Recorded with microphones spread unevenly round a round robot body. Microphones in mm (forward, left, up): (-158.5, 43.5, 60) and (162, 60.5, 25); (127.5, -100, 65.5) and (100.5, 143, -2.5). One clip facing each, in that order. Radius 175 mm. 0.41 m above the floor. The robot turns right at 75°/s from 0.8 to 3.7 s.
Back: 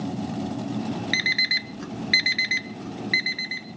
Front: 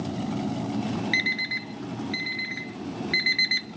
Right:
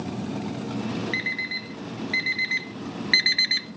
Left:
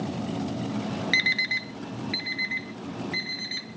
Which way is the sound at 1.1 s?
115° left.